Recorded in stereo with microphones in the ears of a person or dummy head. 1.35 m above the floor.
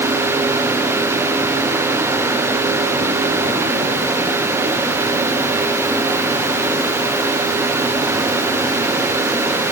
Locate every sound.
Only background noise.